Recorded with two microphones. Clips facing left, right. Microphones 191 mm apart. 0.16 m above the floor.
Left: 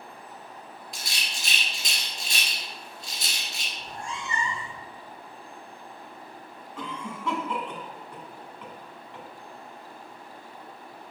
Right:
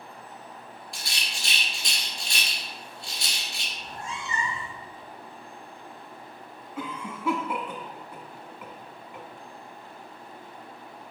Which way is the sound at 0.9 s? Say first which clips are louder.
Even; 20° left (ahead or behind).